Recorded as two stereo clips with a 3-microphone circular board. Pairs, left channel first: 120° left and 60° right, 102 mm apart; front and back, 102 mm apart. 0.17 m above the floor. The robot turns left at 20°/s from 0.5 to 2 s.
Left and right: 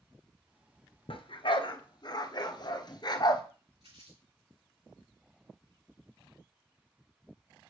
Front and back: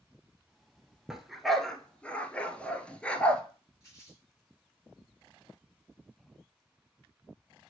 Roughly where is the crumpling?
Ahead right.